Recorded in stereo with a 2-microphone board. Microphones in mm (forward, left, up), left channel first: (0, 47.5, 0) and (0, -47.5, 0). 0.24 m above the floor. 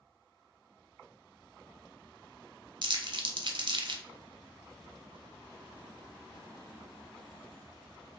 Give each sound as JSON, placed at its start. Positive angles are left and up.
{"t": 2.8, "sound": "crumpling", "side_deg": -55, "distance_m": 0.5}